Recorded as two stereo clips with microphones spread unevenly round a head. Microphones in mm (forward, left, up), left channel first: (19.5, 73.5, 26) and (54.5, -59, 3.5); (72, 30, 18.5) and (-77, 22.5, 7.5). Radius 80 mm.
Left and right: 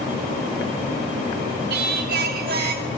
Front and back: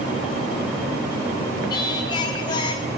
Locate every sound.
1.7 s singing: 65° right, 1.3 m